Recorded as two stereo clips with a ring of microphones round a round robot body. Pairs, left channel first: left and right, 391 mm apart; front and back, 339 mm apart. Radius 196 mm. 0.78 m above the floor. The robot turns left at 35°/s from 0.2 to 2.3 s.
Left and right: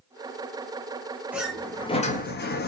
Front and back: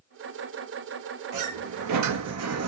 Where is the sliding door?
175° right, 0.9 m; by 2.7 s 150° left, 0.9 m.